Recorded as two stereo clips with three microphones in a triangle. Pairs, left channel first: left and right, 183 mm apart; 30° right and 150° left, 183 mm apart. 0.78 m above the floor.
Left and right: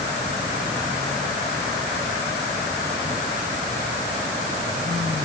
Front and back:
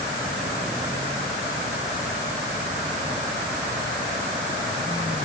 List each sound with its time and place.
Only background noise.